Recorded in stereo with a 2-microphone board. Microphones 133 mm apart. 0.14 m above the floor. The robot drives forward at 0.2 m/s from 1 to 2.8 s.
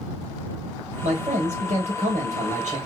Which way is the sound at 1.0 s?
60° right (ahead or behind).